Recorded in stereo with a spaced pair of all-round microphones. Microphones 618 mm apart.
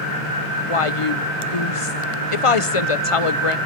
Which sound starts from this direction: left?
A woman speaking, at 0.7 s.